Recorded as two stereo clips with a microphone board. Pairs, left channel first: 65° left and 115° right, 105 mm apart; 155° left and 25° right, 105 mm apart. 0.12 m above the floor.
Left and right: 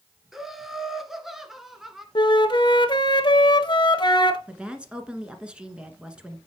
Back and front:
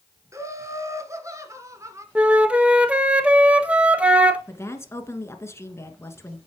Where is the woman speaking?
Straight behind, 1.4 m.